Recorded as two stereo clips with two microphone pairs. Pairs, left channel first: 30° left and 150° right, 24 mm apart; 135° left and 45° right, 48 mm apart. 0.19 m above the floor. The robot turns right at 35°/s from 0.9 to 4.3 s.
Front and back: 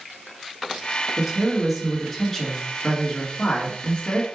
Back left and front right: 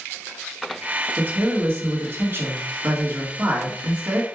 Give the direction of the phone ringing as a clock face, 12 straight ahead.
No phone ringing in this recording.